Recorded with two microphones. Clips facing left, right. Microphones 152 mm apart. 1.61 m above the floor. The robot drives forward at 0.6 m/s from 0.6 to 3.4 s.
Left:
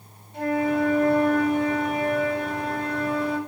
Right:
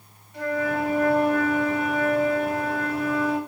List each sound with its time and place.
0.3 s a flute: 20° left (ahead or behind), 9 m; by 3.4 s 25° left (ahead or behind), 7.5 m